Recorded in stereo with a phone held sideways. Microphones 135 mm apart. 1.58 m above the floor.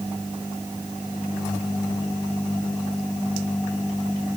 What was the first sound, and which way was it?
Only background noise.